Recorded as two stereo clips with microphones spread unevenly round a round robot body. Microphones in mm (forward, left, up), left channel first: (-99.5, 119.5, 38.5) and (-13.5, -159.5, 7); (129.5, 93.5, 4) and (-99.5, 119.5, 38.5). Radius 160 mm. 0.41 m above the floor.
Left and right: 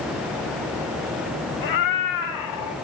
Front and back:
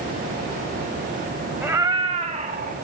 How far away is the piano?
No piano in this recording.